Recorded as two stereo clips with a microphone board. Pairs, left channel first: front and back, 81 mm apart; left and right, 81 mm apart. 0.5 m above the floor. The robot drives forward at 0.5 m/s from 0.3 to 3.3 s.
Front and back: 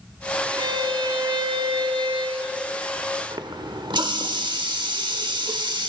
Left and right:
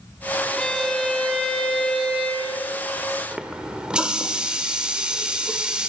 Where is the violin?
170° left, 0.6 m; by 2.6 s 175° left, 1.6 m.